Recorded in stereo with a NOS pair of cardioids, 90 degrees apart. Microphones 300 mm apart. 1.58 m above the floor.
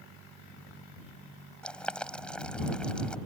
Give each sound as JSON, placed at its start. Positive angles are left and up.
{"t": 1.6, "sound": "boiling", "azimuth_deg": 5}